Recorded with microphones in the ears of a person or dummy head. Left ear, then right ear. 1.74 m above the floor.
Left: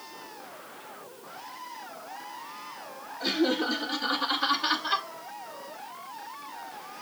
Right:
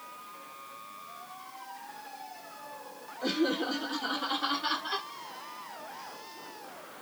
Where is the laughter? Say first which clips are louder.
Left 3 dB; 35° left (ahead or behind), 5.5 m; by 5.1 s 25° left (ahead or behind), 3 m.